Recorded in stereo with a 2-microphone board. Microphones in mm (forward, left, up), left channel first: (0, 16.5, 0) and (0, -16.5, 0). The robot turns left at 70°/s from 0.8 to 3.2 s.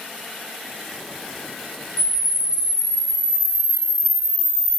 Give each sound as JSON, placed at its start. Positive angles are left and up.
{"t": 2.0, "sound": "a camera shutter", "azimuth_deg": 15, "distance_m": 1.1}